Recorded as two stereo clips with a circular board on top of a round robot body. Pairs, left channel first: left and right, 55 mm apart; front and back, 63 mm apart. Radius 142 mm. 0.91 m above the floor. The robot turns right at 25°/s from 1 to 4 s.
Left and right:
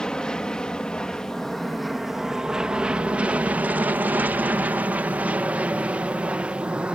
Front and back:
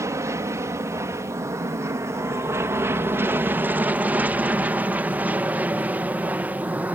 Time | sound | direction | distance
0.0 | an aircraft | 165° left | ?